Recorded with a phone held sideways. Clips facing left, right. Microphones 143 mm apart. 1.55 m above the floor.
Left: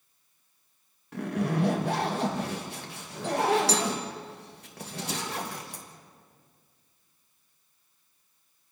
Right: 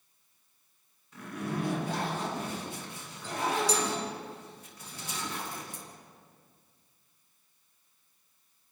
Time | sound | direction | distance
1.1 | a zipper | 70° left (ahead or behind) | 2.5 m